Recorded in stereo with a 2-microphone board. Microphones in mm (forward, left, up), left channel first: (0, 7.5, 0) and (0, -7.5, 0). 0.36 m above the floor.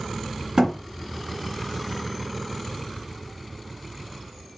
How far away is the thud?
About 1.2 m.